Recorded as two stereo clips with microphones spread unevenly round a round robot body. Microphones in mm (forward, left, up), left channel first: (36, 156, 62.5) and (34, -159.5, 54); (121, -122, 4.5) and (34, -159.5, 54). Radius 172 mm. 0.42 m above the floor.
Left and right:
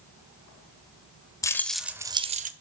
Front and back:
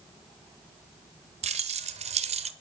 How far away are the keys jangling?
About 1.2 m.